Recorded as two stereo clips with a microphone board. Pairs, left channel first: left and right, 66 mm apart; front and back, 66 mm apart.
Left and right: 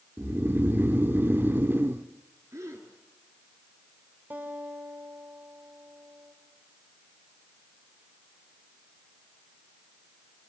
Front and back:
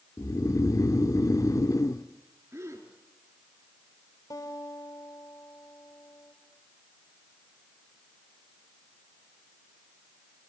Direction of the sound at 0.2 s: 30° right.